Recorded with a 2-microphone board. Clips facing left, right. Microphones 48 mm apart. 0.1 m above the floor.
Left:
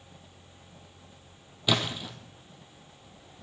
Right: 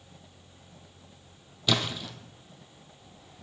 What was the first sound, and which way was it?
A splash, 15° left (ahead or behind).